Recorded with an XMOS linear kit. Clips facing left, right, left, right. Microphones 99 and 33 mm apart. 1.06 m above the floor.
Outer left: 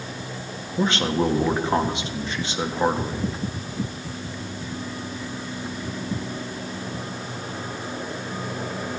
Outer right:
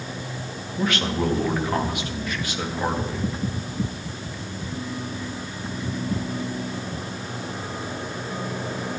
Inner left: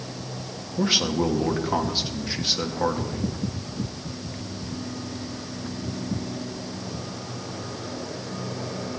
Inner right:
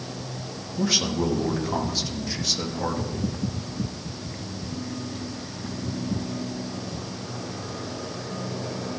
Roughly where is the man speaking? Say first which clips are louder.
Outer left 2 dB, inner left 2 dB; left.